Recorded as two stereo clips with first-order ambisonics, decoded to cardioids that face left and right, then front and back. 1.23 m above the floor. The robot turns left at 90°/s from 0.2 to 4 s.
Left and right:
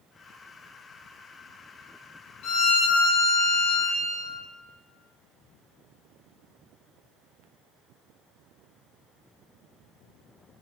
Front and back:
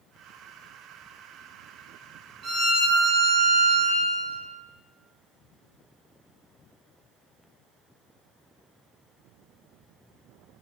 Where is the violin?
120° left, 1.1 m; by 4.4 s 20° right, 1.1 m.